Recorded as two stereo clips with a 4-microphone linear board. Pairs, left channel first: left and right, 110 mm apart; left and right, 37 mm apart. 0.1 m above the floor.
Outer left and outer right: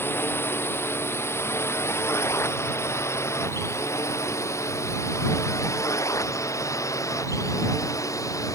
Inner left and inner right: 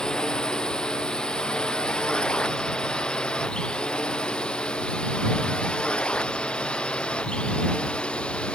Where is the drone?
20° left (ahead or behind); by 8.6 s 30° left (ahead or behind).